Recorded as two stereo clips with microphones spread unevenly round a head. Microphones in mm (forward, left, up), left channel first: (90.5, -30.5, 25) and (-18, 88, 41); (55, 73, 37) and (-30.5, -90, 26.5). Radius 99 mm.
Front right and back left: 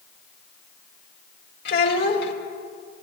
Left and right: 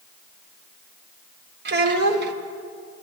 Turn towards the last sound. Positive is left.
turn(degrees=-85)